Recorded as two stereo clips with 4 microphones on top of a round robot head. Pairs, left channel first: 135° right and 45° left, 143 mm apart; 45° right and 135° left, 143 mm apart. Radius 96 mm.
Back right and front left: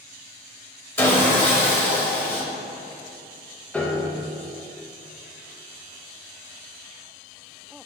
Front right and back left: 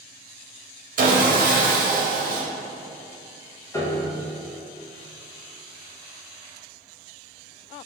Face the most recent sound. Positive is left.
turn(degrees=-65)